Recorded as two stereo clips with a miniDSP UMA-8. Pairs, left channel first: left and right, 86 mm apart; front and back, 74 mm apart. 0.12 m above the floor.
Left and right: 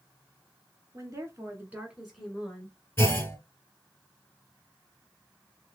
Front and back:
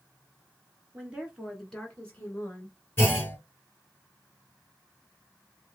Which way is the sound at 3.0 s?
45° left.